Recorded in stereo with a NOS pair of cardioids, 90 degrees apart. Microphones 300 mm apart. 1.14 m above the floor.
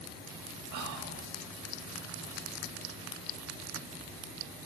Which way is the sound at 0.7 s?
65° right.